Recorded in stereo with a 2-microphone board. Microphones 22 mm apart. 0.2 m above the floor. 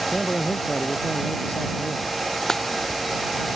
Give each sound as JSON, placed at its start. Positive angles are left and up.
{"t": 0.1, "sound": "a man speaking", "side_deg": 70}
{"t": 2.5, "sound": "a dropped coin", "side_deg": 20}